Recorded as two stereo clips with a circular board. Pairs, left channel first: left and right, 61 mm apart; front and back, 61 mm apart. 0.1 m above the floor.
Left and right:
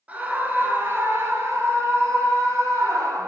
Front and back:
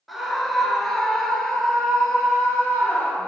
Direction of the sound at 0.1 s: 90° right.